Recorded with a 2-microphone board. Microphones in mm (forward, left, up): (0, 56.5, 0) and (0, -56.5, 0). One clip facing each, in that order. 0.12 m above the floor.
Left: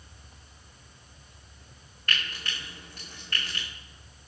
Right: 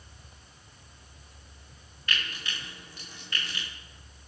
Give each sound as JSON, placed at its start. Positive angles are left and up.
{"t": 2.1, "sound": "frying", "side_deg": 50, "distance_m": 7.0}